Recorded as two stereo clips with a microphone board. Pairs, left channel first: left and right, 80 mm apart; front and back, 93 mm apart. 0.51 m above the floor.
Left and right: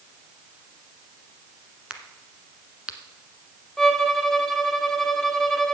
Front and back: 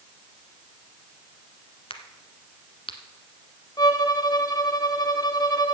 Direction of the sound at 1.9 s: 10° right.